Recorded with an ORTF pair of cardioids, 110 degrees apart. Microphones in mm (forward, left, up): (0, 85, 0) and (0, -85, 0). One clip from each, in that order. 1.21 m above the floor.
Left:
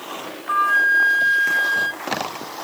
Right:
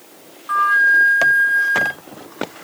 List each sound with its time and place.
0.5 s a flute: straight ahead, 1.0 m